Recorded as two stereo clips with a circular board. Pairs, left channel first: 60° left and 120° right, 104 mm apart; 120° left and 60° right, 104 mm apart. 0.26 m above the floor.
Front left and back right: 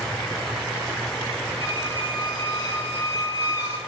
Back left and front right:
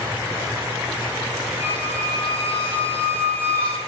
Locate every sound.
1.6 s a squeak: 5° left, 5.5 m